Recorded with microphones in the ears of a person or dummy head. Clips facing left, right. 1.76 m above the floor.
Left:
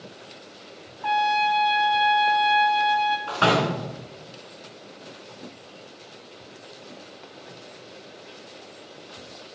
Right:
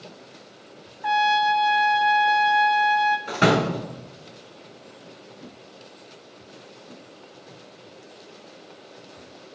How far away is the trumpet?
About 0.7 m.